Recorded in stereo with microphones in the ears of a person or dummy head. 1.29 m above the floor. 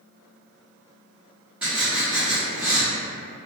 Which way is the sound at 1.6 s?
5° right (ahead or behind).